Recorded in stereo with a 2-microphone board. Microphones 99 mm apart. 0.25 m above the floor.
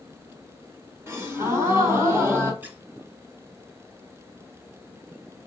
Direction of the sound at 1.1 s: 30° right (ahead or behind).